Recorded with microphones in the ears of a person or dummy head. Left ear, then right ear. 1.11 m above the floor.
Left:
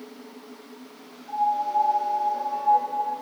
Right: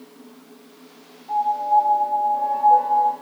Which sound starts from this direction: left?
A piano, at 1.3 s.